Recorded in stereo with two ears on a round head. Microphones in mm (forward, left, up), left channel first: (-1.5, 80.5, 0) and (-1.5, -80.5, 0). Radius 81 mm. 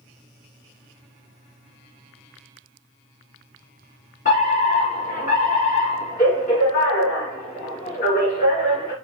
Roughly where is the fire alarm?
Left.